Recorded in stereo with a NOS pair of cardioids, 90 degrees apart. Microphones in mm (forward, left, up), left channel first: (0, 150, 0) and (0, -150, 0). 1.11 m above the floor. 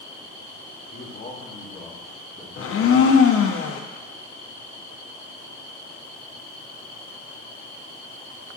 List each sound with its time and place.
0.9 s a man speaking: 30° left, 1.6 m; by 3.6 s 40° right, 1.9 m
2.6 s a blender: 50° left, 0.9 m